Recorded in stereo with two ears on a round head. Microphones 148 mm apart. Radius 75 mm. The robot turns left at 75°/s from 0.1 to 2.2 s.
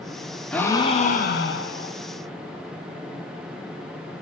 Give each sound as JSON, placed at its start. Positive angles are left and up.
{"t": 0.5, "sound": "a gasp", "azimuth_deg": 175, "distance_m": 0.6}